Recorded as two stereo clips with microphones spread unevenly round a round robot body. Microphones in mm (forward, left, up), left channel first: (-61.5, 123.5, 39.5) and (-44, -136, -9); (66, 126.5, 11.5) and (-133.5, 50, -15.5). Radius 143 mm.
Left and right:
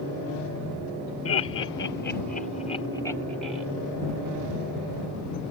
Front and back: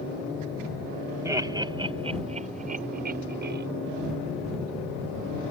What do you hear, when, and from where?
1.2 s laughter: 130° left; by 3.6 s 160° right